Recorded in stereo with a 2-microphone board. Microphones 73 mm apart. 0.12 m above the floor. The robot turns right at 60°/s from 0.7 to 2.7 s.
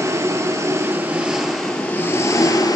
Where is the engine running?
55° right, 1.0 m; by 2.8 s 65° left, 1.0 m.